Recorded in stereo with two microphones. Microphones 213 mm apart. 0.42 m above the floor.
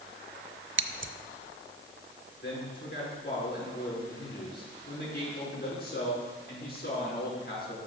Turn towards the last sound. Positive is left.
turn(degrees=45)  # may be behind; listen again after turning